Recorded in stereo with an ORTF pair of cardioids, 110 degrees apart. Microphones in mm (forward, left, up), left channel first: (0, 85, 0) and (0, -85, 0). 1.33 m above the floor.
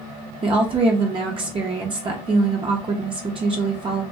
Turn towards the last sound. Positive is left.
turn(degrees=-30)